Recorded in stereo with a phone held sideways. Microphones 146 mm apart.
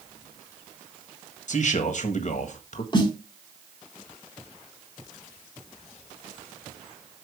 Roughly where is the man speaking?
Left.